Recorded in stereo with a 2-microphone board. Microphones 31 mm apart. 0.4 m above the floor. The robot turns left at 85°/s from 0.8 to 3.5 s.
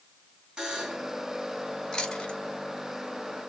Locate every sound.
0.6 s a buzzer: 30° right (ahead or behind), 2.5 m; by 1.1 s centre (ahead or behind), 2.5 m
1.9 s chewing: 25° left (ahead or behind), 1.6 m; by 2.4 s 35° left (ahead or behind), 1.6 m